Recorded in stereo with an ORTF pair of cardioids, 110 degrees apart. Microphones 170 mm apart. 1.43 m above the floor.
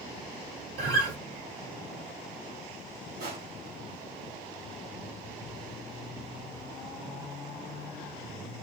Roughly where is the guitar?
Ahead right.